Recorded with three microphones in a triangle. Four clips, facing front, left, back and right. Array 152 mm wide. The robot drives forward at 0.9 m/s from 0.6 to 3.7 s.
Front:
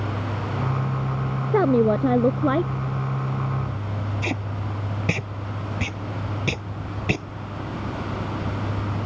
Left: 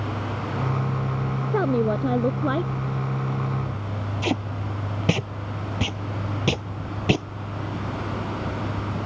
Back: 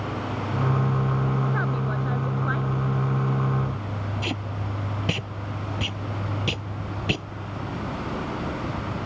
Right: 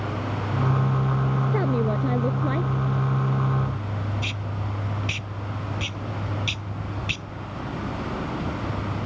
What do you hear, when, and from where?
1.5 s a woman speaking: 10° left; by 2.7 s 15° left
4.2 s tape being pulled: 80° left